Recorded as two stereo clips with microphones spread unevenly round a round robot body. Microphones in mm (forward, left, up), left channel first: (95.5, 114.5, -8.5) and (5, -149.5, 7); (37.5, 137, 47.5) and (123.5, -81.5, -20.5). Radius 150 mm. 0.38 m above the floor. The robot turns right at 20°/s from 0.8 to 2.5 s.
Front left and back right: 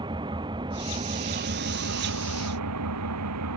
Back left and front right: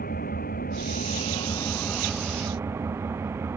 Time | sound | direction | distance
0.0 | an engine running | 175° left | ?